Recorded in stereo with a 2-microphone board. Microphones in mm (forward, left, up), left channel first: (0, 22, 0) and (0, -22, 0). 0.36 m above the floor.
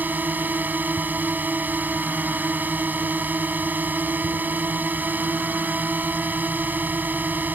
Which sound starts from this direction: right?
A drone, at 0.0 s.